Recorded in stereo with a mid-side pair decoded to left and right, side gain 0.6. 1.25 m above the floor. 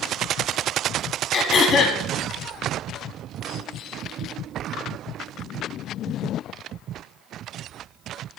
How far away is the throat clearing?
About 1.6 m.